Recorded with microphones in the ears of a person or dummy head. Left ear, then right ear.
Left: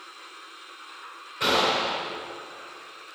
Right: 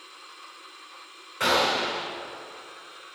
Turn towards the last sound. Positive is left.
turn(degrees=-35)  # may be behind; listen again after turning